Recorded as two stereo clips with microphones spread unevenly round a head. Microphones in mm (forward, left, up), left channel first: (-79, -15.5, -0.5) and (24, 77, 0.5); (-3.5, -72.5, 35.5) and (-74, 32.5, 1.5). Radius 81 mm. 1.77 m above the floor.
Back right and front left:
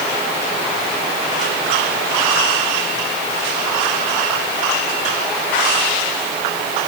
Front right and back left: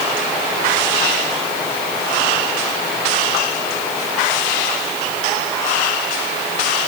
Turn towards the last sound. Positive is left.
No sound to turn to.